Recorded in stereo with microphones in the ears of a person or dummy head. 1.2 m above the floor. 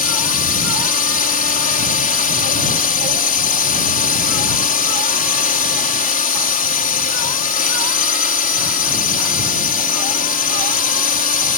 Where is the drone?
40° left (ahead or behind).